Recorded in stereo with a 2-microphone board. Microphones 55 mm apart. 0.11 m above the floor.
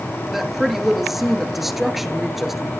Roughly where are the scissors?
I don't hear scissors.